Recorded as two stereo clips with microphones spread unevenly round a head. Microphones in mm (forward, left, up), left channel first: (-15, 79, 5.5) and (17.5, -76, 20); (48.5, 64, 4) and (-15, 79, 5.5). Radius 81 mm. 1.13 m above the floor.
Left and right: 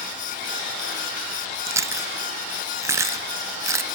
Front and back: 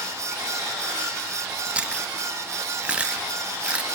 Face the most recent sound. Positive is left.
turn(degrees=-130)